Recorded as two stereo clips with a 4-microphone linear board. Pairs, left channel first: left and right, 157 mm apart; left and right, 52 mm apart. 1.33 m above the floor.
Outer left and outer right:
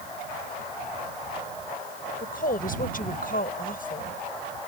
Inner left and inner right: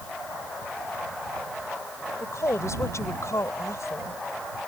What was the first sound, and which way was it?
A woman speaking, 65° left (ahead or behind).